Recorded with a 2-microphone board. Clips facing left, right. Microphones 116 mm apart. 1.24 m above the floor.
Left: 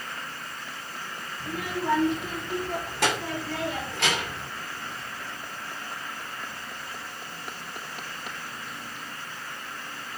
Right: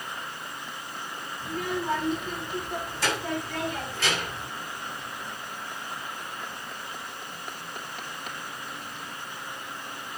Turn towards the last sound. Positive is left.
turn(degrees=65)  # may be behind; listen again after turning